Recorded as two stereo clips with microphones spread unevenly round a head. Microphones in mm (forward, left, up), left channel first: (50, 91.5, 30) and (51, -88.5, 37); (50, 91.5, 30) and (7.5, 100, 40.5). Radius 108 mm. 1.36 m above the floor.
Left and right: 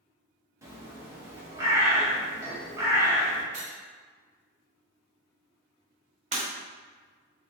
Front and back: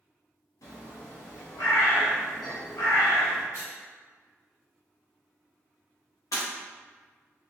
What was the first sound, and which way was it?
A bird, 15° right.